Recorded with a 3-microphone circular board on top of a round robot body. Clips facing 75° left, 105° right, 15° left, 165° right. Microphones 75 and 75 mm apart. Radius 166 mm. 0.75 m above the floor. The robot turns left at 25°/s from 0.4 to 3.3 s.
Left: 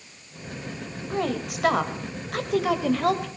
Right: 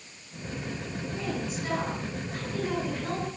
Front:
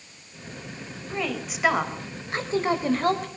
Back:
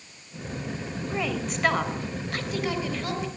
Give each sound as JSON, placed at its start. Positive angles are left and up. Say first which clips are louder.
{"t": 1.1, "sound": "a woman speaking", "louder": "left 7 dB, even", "azimuth_deg": 110, "distance_m": 4.0}